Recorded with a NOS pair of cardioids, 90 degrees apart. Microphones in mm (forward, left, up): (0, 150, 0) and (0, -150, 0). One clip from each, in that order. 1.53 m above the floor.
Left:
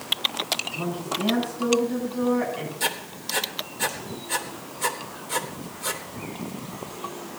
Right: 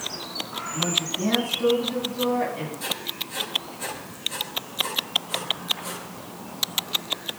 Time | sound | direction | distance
0.7 | a woman speaking | 10° left | 9 m
2.8 | writing | 65° left | 3 m